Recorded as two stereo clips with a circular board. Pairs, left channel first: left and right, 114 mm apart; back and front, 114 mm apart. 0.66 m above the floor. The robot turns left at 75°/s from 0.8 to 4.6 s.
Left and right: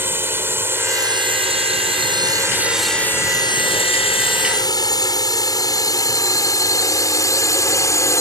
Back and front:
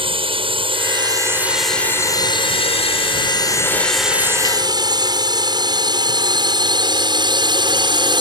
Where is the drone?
25° right; by 8.2 s 35° left.